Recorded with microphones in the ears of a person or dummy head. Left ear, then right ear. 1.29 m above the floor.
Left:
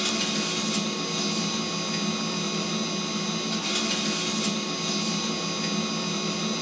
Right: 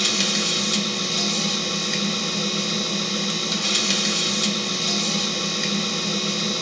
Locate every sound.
0.0 s a machine running: 55° right (ahead or behind), 1.2 m